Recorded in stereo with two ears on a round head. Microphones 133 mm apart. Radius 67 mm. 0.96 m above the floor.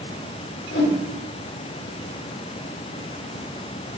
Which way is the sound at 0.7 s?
80° left.